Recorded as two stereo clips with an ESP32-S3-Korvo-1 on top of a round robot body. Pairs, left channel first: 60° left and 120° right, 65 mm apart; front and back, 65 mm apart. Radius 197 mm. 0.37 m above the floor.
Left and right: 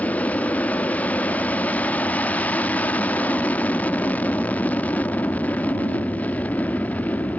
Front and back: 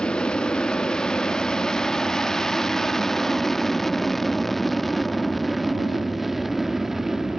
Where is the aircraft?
50° left; by 7.4 s 100° left.